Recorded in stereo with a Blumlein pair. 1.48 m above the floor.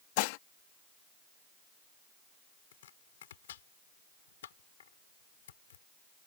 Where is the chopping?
60° left.